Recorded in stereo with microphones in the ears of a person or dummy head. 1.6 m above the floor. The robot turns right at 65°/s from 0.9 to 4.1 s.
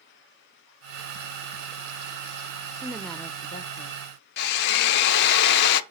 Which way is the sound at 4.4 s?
55° left (ahead or behind).